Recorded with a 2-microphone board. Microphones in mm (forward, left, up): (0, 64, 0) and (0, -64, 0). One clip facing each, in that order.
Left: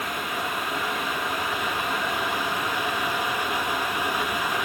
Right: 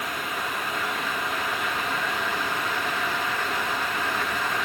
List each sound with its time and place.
Only background noise.